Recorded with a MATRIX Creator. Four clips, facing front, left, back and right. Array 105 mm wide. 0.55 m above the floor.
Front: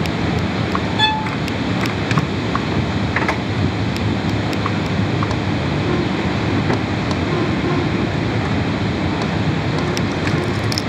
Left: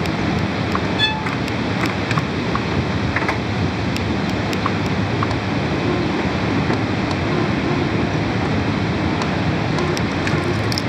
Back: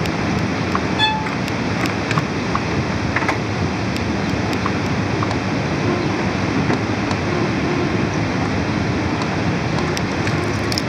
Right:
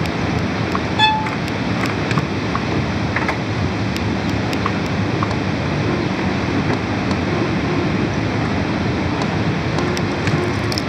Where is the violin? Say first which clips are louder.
Right 6 dB, front 1 dB; 75° right, 3 m.